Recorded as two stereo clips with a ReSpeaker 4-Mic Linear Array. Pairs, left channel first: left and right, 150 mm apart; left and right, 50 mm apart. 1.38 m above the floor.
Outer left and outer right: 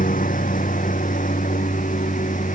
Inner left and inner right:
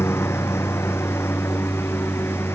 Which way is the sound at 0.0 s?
65° left (ahead or behind).